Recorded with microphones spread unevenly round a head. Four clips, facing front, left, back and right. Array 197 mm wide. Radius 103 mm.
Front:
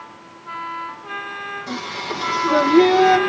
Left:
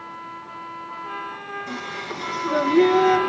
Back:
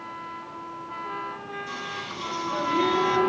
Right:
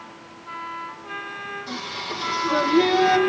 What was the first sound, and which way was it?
Singing, 5° left.